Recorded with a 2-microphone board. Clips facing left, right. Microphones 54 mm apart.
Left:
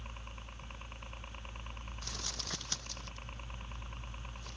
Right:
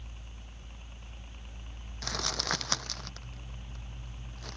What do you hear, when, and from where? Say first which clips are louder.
0.0 s a helicopter: left 4 dB; 55° left (ahead or behind)
2.0 s crumpling: right 12 dB; 75° right (ahead or behind)